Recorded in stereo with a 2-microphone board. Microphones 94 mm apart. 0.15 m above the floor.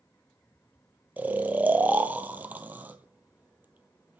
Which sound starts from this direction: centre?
Snoring, at 1.2 s.